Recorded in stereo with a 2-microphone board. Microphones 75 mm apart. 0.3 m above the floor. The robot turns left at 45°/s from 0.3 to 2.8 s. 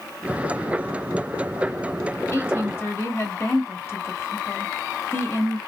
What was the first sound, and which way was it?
A woman speaking, 35° left (ahead or behind).